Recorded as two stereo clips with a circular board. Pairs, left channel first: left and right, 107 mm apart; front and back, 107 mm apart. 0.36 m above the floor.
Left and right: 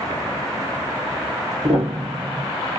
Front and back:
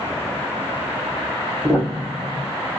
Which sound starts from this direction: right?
A piano, at 1.6 s.